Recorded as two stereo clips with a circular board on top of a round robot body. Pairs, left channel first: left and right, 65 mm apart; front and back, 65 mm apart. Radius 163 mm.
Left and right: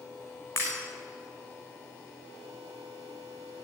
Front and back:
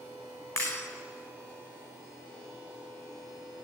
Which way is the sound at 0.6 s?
40° left.